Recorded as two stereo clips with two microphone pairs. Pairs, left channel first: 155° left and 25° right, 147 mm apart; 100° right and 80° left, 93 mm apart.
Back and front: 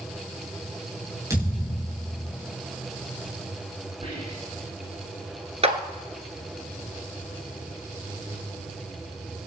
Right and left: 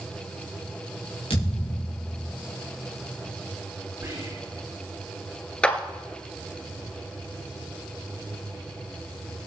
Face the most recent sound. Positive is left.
turn(degrees=-30)